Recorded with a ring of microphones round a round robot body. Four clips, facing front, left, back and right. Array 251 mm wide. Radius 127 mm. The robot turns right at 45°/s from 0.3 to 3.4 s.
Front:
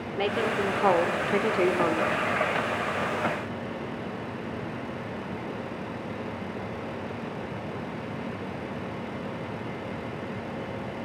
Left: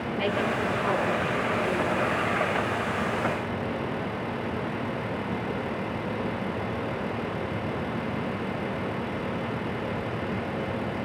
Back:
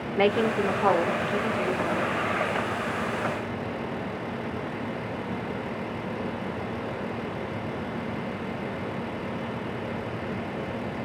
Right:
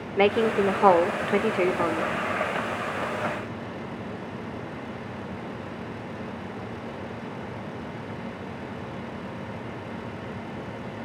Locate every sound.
0.2 s a woman speaking: 115° right, 2.5 m; by 2.1 s 35° right, 2.5 m